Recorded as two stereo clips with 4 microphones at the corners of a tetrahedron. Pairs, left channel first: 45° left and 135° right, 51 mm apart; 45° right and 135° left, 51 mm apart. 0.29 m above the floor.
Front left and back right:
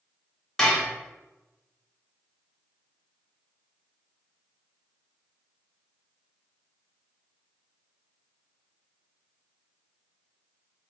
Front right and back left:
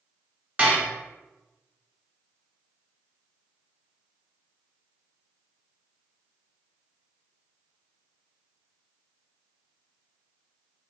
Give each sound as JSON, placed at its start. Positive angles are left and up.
{"t": 0.6, "sound": "dishes clattering", "azimuth_deg": 115, "distance_m": 0.9}